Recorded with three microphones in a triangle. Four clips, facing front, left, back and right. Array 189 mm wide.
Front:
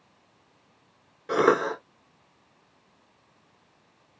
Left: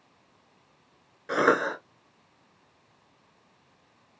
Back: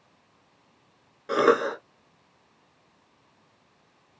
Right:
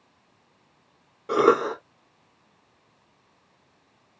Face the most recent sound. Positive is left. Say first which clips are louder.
# right 4 dB, back 1 dB
turn(degrees=-95)